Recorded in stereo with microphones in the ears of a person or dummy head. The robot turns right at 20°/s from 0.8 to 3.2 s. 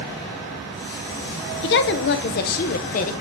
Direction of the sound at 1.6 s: 50° left (ahead or behind).